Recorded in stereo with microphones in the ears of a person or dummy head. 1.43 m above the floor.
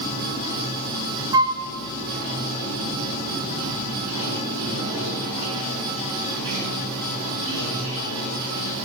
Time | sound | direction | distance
0.0 | running water | 70° right (ahead or behind) | 4 m
1.3 | a flute | 20° right (ahead or behind) | 0.9 m